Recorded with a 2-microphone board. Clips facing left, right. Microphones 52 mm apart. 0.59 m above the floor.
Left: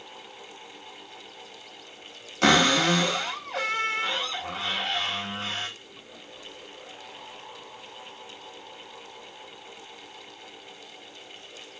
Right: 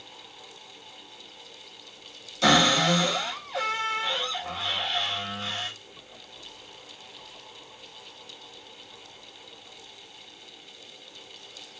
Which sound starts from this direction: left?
A cupboard door, at 2.4 s.